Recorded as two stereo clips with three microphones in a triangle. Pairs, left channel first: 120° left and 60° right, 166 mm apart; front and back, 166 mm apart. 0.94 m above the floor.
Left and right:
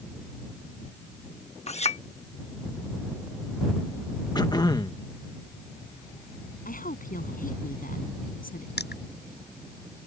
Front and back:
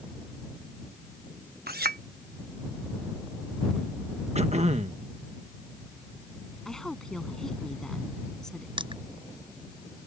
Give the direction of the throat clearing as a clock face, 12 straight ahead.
6 o'clock.